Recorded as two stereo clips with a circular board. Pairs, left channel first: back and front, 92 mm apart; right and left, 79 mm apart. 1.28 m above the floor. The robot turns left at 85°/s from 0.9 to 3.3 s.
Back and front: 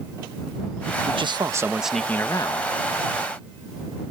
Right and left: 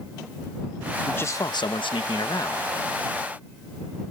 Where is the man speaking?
15° right; by 2.7 s 160° right.